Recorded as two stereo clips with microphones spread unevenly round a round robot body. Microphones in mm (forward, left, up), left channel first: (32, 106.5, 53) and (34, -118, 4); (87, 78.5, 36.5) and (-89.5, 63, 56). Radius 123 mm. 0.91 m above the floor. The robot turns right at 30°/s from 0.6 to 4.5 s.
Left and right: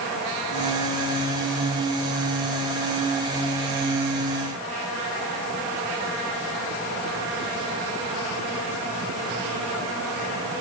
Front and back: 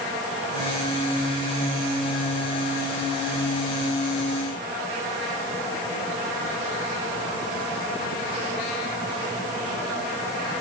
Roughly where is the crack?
I don't hear a crack.